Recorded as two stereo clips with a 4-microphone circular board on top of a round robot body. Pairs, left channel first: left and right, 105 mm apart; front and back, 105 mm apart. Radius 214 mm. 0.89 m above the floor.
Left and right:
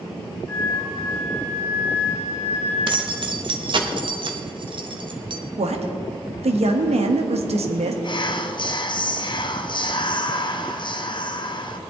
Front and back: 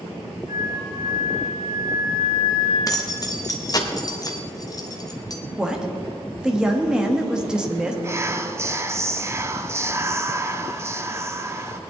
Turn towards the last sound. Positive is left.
turn(degrees=120)